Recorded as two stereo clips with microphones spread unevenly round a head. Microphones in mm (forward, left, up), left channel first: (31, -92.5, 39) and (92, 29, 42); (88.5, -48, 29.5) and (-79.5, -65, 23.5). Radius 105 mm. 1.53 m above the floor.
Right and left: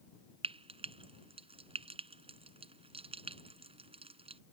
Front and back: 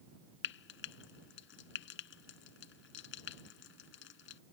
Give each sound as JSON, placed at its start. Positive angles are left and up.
{"t": 0.4, "sound": "frying", "azimuth_deg": 20}